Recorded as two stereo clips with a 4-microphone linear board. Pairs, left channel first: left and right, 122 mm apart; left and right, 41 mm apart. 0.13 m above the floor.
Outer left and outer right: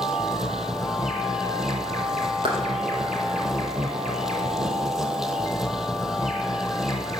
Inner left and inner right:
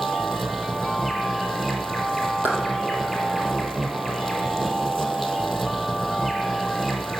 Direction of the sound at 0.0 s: 5° right (ahead or behind).